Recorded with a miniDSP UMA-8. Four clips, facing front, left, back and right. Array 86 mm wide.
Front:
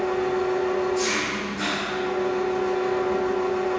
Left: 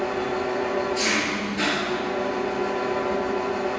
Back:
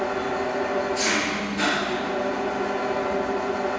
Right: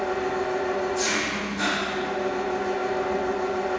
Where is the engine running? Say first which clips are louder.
Even, front 2 dB; 115° left, 1.0 m.